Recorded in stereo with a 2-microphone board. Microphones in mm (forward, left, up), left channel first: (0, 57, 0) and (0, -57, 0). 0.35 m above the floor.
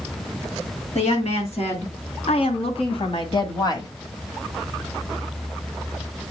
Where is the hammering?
I don't hear hammering.